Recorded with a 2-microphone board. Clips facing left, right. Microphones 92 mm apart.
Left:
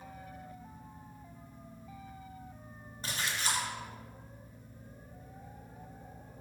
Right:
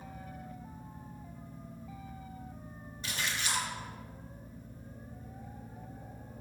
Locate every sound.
3.0 s a splash: 40° left (ahead or behind), 1.7 m